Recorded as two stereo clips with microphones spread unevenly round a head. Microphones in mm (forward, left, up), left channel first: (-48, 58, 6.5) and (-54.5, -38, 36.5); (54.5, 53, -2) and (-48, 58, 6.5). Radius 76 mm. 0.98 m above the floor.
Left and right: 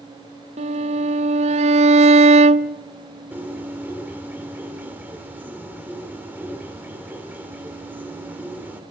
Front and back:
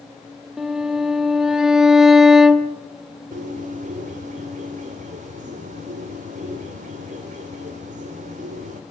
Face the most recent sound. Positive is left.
turn(degrees=-165)